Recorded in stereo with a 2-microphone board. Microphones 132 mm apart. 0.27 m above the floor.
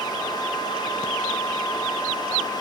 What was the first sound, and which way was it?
Only background noise.